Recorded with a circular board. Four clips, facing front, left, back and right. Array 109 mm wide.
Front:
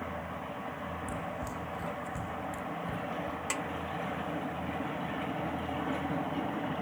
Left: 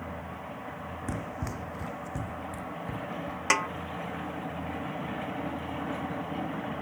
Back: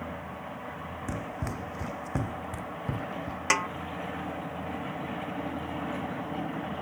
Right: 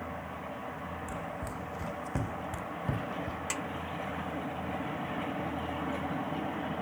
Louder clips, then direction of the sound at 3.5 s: Left 9 dB, back 13 dB; 130° left.